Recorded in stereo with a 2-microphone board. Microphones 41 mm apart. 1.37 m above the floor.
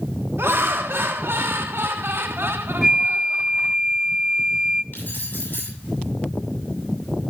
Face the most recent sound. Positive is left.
turn(degrees=60)  # may be behind; listen again after turning